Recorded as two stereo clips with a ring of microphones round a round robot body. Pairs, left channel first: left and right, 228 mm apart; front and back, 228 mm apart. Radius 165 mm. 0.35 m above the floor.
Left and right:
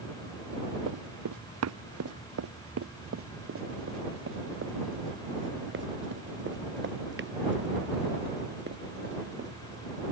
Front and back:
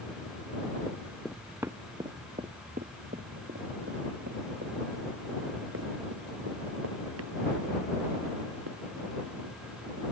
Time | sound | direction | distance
0.9 | running footsteps | 80° right | ?